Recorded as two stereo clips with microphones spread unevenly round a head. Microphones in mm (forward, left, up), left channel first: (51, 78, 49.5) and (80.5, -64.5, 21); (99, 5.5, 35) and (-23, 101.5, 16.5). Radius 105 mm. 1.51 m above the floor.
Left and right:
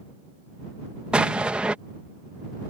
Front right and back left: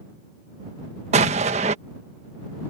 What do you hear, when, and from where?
1.1 s an explosion: 175° right